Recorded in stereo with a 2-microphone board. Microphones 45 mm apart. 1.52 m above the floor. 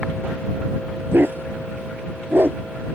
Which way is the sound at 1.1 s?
50° right (ahead or behind).